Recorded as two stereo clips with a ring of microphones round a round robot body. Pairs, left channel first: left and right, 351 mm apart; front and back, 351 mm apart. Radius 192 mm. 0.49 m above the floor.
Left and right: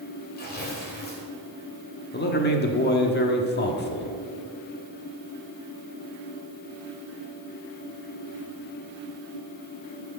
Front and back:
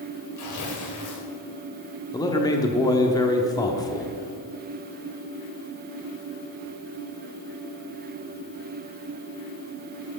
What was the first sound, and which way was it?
Tearing paper, 30° left.